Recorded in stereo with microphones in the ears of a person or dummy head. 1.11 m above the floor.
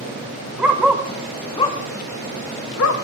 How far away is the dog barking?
About 1.8 m.